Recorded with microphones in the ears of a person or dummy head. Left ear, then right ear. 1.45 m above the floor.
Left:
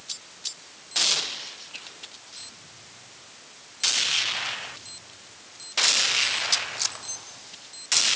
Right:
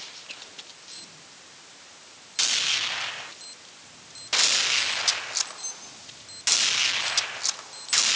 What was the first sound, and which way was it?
Only background noise.